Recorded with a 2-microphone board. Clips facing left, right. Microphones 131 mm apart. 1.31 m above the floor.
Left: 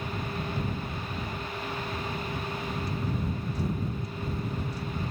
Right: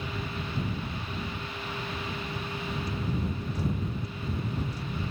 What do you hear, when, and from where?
Only background noise.